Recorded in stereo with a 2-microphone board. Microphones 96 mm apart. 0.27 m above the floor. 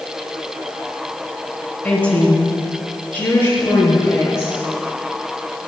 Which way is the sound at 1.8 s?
10° left (ahead or behind).